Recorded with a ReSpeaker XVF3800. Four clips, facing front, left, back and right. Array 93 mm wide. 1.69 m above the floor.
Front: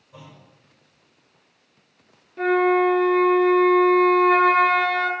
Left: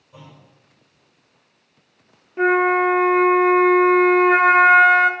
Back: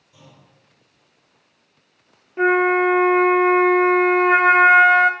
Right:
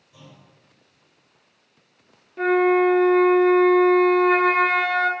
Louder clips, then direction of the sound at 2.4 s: Left 1 dB, back 2 dB; 145° left.